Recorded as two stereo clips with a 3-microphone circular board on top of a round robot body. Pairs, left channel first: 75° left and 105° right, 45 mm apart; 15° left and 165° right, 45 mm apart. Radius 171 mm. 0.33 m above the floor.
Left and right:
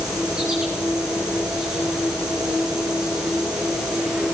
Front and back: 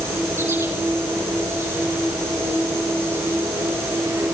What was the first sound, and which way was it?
An insect, straight behind.